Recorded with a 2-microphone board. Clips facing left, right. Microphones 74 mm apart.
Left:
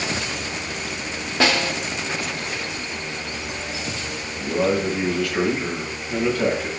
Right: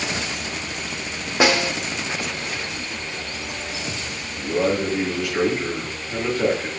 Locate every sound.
1.4 s a snare drum: 15° right (ahead or behind), 1.0 m
4.4 s a man speaking: 15° right (ahead or behind), 5 m